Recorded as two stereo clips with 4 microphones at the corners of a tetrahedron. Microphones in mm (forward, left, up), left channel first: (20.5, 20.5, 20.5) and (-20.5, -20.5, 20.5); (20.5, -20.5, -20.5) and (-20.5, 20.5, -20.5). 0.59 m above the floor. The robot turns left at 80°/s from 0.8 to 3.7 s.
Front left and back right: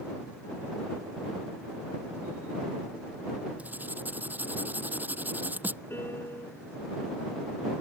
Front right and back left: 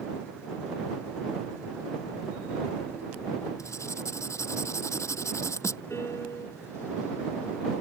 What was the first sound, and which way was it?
Writing, 70° right.